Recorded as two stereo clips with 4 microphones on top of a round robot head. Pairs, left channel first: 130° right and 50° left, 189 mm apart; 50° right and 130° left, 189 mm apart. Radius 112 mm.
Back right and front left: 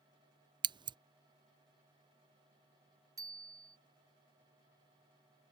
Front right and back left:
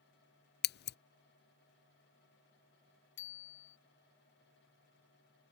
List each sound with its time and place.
0.6 s scissors: 20° right
3.2 s a bicycle bell: 25° right